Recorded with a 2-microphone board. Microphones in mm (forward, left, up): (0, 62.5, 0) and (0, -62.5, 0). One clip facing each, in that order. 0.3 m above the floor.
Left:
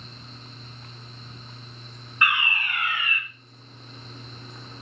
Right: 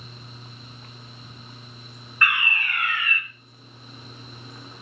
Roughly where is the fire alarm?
Centre.